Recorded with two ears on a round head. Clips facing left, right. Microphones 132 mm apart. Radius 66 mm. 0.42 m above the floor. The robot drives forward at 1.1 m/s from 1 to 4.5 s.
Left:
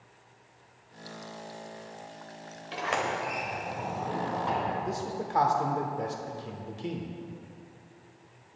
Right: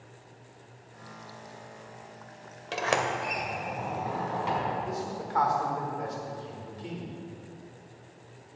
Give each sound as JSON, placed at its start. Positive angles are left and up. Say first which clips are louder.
{"t": 2.7, "sound": "a sliding door", "louder": "right 2 dB", "side_deg": -55, "distance_m": 1.0}
{"t": 4.8, "sound": "a man speaking", "louder": "left 1 dB", "side_deg": 30, "distance_m": 0.8}